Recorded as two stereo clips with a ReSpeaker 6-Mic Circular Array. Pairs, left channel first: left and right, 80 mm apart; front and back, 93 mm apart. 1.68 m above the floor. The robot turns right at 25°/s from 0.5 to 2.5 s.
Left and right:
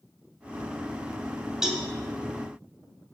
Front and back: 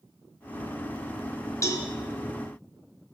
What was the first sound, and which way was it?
A cowbell, 15° right.